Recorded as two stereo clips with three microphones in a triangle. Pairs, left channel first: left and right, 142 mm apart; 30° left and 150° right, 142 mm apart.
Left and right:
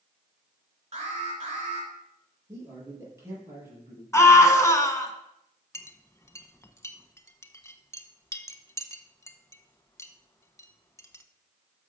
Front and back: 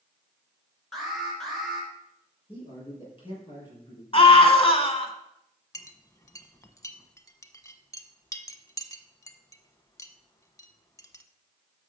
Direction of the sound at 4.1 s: 35° left.